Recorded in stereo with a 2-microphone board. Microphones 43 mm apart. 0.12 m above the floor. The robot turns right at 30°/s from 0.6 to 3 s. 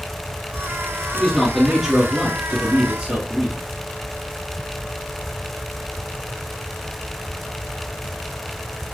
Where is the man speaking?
5° left (ahead or behind), 1.5 m; by 3.6 s 20° right (ahead or behind), 1.5 m.